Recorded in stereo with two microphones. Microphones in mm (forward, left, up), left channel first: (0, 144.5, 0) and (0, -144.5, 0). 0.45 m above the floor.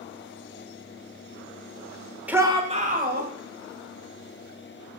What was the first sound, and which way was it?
A shout, 5° right (ahead or behind).